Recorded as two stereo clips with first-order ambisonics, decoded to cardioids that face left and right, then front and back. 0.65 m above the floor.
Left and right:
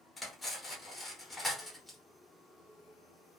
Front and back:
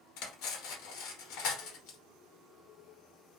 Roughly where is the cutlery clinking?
Ahead.